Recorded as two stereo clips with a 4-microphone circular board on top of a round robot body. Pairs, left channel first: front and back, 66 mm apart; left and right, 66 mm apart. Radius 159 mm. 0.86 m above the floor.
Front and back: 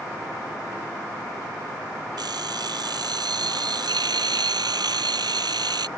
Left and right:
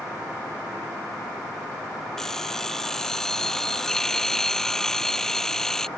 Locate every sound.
2.2 s an alarm clock: 175° left